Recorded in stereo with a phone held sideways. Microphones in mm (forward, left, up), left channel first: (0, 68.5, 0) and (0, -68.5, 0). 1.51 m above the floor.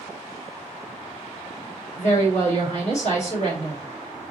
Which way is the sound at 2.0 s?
55° left (ahead or behind).